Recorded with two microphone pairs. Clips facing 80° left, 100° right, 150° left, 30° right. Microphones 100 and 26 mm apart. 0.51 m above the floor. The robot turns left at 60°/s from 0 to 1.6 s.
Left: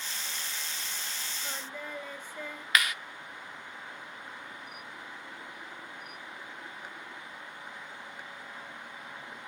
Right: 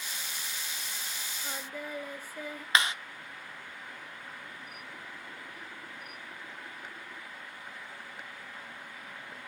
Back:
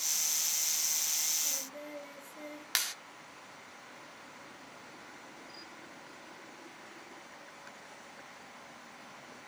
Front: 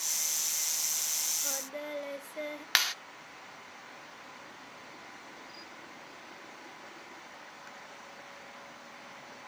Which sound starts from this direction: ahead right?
A clap, at 2.8 s.